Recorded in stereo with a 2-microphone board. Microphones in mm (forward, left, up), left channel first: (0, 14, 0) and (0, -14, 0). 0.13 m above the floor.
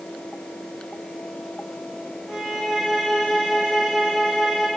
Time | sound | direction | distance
2.3 | a violin | 15° right (ahead or behind) | 7.5 m